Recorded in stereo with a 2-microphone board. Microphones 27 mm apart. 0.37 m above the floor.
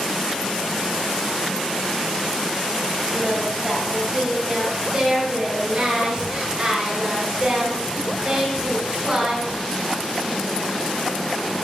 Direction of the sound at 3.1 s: 35° right (ahead or behind).